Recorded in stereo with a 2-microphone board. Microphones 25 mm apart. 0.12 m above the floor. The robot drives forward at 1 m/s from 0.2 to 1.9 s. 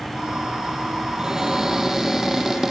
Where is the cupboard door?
20° right (ahead or behind), 1.8 m; by 2.7 s 15° right (ahead or behind), 2.5 m.